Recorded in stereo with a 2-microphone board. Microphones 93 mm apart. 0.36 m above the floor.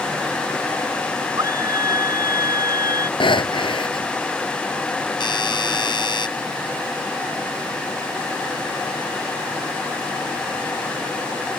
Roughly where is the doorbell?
Left.